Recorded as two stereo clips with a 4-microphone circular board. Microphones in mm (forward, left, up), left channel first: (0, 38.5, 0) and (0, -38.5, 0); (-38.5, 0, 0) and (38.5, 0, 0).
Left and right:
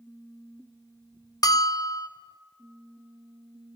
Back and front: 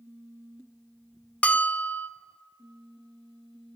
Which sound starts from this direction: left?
A bell, at 1.4 s.